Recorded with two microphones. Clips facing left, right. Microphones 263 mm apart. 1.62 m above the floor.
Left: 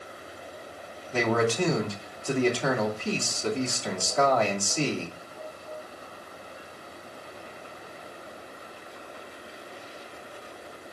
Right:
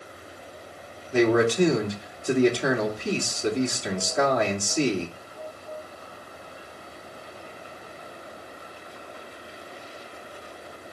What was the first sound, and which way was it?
A man speaking, 15° right (ahead or behind).